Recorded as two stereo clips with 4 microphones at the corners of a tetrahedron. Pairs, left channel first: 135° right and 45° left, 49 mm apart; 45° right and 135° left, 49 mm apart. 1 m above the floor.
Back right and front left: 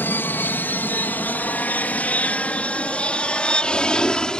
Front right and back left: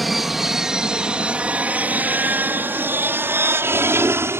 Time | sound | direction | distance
0.0 | an aircraft | 140° right | ?